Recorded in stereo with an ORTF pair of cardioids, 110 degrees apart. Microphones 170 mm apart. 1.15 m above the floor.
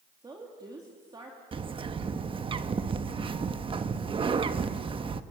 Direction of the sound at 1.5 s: 30° right.